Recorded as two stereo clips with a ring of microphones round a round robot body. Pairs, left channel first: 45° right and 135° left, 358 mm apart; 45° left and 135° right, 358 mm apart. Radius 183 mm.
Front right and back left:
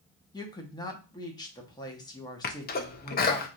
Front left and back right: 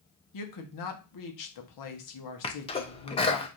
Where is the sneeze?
15° right, 0.6 m.